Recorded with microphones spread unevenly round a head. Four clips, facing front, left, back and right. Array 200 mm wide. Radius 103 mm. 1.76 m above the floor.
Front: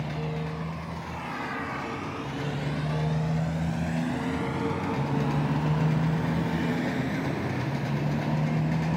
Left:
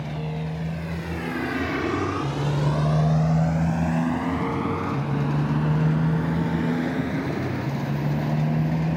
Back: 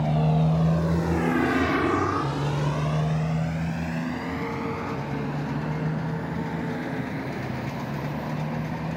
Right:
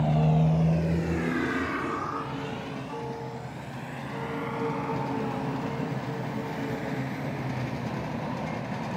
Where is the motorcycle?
135° right; by 9.0 s 75° left.